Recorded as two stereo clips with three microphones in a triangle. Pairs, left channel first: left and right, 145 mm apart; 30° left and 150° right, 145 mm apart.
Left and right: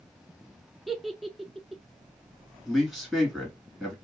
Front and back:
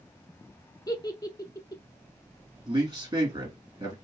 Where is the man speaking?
Straight behind, 1.9 m.